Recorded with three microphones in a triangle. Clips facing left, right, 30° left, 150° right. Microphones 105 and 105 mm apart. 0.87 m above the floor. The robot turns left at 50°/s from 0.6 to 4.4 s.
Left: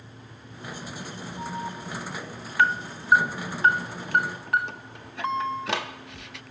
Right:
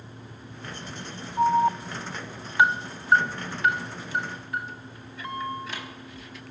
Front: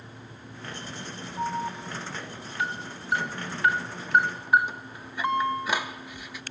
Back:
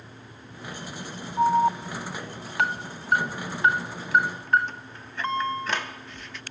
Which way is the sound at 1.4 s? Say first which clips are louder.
Right 14 dB, back 10 dB; 100° right.